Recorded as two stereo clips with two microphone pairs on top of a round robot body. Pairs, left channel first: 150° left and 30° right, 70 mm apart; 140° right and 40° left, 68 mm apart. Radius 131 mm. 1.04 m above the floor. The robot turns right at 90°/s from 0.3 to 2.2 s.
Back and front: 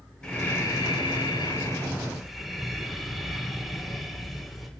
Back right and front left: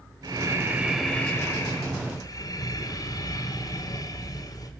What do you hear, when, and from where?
0.2 s breathing: 70° left, 4 m; by 4.7 s 120° right, 4 m